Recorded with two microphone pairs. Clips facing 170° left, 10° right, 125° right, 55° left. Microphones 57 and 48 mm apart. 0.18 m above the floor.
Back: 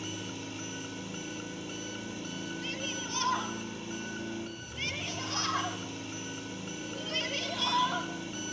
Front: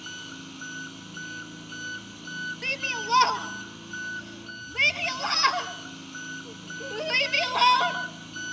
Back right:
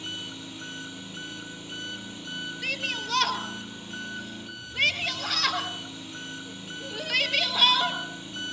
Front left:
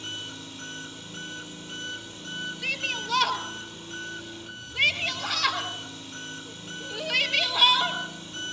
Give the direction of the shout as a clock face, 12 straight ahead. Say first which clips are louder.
Front 7 dB, even; 1 o'clock.